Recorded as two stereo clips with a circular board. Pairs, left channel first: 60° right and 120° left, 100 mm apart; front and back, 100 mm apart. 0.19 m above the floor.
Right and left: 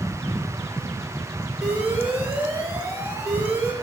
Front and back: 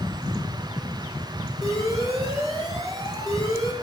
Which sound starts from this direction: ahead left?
An alarm, at 1.6 s.